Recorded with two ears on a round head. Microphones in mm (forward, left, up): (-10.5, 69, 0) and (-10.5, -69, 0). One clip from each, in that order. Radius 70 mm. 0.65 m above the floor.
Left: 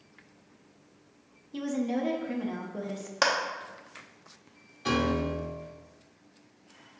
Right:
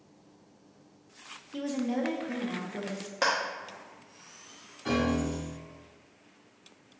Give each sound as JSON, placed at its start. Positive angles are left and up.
{"t": 1.5, "sound": "a woman speaking", "side_deg": 0, "distance_m": 0.5}
{"t": 3.2, "sound": "a clap", "side_deg": 35, "distance_m": 0.7}
{"t": 4.8, "sound": "a piano", "side_deg": 60, "distance_m": 1.1}